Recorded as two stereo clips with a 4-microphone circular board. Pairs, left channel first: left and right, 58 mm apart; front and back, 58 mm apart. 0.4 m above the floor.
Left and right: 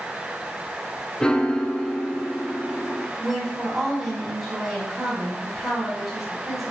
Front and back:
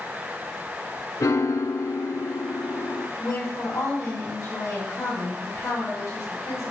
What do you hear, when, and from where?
1.2 s a piano: 15° left, 0.8 m
3.2 s a woman speaking: 5° right, 3.5 m